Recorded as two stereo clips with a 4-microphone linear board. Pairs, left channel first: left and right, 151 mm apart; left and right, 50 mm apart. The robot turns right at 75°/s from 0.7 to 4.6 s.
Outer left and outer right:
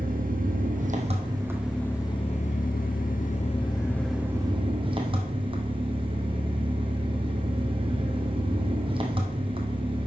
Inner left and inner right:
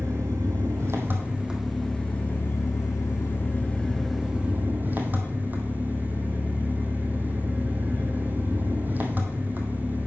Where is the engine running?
75° right, 1.3 m; by 10.1 s 145° right, 1.3 m.